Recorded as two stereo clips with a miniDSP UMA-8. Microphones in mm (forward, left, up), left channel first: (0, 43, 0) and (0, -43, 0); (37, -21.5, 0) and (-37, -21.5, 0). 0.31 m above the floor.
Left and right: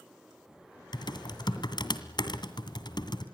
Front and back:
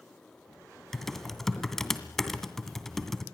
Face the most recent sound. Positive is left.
turn(degrees=85)